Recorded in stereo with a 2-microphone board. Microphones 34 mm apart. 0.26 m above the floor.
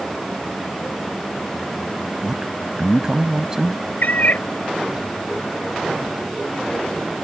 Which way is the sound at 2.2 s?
20° right (ahead or behind).